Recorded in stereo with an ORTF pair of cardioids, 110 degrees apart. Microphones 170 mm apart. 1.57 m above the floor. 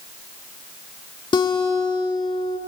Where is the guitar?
30° left, 3 m.